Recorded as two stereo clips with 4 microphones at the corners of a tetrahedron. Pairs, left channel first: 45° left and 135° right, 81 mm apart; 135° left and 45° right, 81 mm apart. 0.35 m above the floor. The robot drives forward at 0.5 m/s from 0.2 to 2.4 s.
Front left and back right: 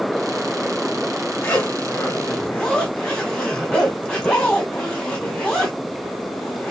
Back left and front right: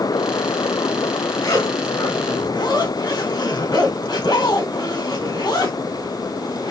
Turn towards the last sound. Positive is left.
turn(degrees=125)